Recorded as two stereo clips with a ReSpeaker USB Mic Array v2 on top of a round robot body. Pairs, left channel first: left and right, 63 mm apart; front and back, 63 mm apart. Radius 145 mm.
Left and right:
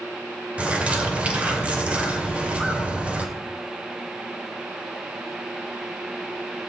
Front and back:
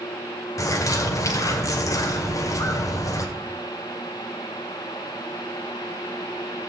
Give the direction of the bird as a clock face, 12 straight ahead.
1 o'clock.